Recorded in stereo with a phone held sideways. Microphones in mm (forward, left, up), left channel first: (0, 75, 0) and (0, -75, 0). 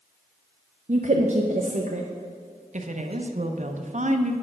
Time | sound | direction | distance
0.9 | a woman speaking | 50° right (ahead or behind) | 0.6 m
2.7 | a woman speaking | 50° right (ahead or behind) | 0.7 m